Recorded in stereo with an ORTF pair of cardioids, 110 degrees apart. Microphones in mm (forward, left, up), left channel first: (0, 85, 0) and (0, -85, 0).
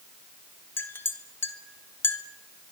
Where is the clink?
15° left, 1.9 m.